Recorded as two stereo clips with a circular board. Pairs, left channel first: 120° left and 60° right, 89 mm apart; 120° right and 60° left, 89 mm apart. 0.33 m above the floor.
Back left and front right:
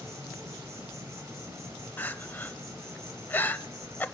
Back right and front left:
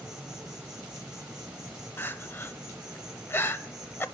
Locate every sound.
0.0 s an insect: 20° right, 2.5 m
2.0 s crying: straight behind, 0.7 m